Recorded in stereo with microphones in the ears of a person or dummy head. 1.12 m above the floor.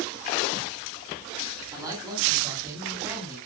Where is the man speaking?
20° right (ahead or behind), 10 m.